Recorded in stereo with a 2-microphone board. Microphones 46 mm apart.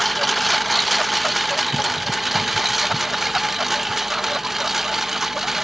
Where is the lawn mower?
Centre (ahead or behind); by 5.7 s 5° right (ahead or behind).